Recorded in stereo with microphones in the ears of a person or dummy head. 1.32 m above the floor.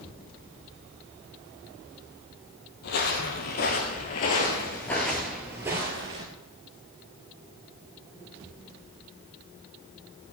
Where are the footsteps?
55° left (ahead or behind), 2.5 m; by 6.2 s 25° right (ahead or behind), 1.8 m.